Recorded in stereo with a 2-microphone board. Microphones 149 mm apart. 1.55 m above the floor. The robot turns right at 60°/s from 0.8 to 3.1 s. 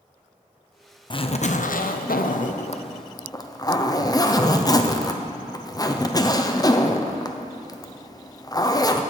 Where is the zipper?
35° left, 0.6 m; by 9.0 s 155° left, 0.6 m.